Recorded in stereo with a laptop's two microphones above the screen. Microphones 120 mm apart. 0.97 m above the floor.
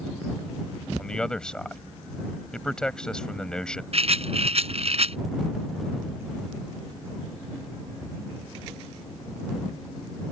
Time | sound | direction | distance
1.0 | a man speaking | 5° left (ahead or behind) | ?
3.9 | a rattle | 60° right (ahead or behind) | ?